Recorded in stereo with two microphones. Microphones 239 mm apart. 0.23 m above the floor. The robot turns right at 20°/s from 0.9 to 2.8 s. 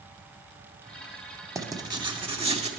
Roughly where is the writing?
Centre.